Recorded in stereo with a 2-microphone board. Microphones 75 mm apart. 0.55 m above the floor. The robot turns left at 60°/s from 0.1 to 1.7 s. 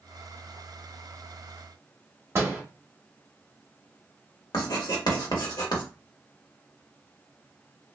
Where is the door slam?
35° right (ahead or behind), 0.9 m.